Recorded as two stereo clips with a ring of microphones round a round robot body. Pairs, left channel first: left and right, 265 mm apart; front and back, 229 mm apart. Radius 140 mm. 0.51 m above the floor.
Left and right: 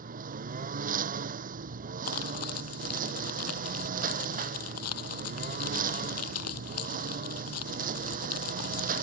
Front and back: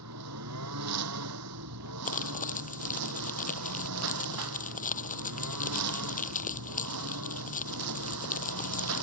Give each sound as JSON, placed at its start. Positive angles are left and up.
{"t": 0.0, "sound": "a lawn mower", "azimuth_deg": -150}
{"t": 2.0, "sound": "crumpling", "azimuth_deg": 55}